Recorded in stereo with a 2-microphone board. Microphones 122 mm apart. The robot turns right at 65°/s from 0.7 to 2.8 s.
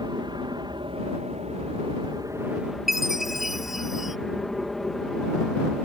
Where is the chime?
Centre (ahead or behind).